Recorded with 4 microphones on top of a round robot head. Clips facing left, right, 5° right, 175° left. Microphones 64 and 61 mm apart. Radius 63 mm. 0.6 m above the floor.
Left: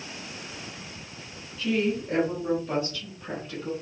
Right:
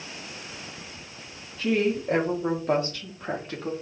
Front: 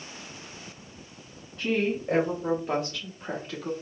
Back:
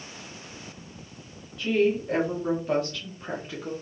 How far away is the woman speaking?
About 1.5 m.